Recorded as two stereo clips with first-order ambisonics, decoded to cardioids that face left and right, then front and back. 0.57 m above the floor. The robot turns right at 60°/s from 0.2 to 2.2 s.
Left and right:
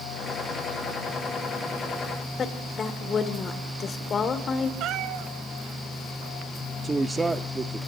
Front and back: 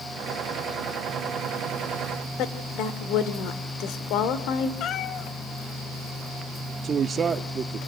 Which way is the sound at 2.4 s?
25° left.